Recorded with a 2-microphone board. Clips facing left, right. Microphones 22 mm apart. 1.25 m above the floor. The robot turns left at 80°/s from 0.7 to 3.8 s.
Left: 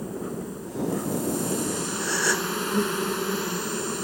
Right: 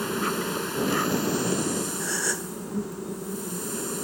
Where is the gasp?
Straight behind; by 2.5 s 140° left.